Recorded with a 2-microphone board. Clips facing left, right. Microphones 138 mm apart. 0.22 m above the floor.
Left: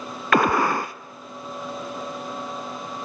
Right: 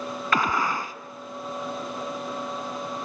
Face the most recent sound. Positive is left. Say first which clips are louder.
# left 6 dB
turn(degrees=65)  # may be behind; listen again after turning